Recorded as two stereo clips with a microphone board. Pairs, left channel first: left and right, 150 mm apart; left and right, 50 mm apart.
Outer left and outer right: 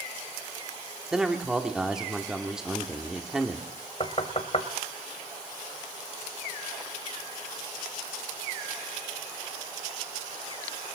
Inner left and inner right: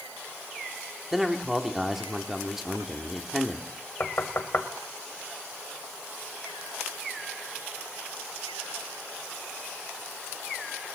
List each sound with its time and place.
1.1 s a man speaking: 5° right (ahead or behind), 1.4 m
4.0 s knocking: 45° left (ahead or behind), 1.5 m